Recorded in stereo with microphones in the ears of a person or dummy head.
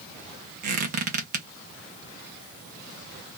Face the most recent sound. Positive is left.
turn(degrees=-50)  # may be behind; listen again after turning